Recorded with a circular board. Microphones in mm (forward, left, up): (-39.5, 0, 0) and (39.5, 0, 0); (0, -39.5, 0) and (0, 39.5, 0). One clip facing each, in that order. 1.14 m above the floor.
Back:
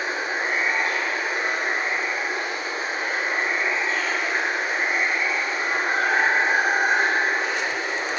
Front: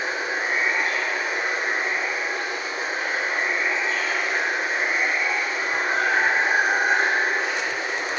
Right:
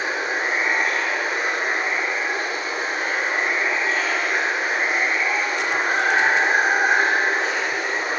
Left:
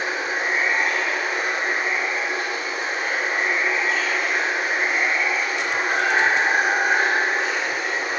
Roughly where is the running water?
Behind right.